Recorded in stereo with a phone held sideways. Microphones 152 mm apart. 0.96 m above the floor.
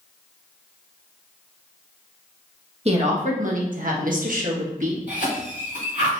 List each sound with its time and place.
2.9 s a woman speaking: 45° right (ahead or behind), 1.0 m; by 5.0 s 55° right (ahead or behind), 1.3 m
5.1 s a cough: 55° right (ahead or behind), 2 m